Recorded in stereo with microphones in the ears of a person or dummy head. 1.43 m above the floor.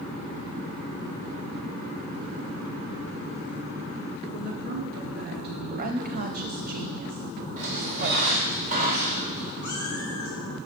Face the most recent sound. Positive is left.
turn(degrees=15)  # may be behind; listen again after turning